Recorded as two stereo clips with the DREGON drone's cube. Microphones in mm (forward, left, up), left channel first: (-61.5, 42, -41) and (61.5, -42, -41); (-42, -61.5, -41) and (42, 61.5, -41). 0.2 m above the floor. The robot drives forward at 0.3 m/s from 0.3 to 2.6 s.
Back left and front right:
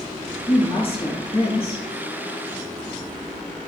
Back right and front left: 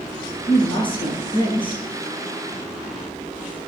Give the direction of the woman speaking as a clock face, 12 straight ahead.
6 o'clock.